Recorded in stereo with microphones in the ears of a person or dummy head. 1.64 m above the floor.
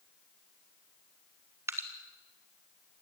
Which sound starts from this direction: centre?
Dripping, at 1.7 s.